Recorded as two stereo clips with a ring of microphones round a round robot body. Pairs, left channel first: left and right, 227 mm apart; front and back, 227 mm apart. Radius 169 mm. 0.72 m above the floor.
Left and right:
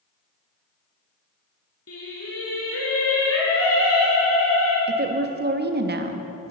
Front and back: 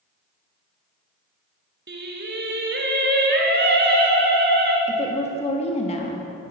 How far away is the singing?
About 2 m.